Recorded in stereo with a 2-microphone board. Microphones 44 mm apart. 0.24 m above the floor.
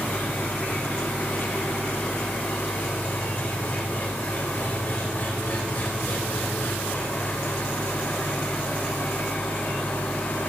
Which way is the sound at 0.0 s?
50° left (ahead or behind).